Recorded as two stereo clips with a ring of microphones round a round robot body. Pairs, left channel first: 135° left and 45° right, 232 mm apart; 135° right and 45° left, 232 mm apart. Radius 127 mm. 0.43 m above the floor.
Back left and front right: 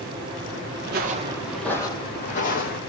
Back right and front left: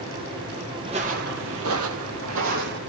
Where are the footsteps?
20° right, 0.5 m; by 2.8 s 85° left, 1.0 m.